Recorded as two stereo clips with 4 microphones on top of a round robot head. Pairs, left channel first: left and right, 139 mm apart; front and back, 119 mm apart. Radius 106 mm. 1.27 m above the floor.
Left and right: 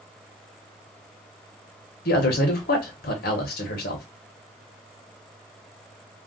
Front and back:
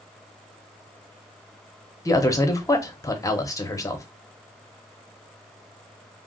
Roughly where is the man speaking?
Ahead left.